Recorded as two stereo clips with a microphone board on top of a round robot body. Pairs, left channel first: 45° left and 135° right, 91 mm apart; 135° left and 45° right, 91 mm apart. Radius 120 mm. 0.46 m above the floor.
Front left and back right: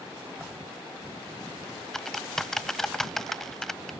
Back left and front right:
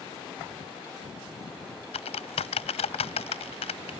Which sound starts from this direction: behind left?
Typing on a keyboard, at 1.9 s.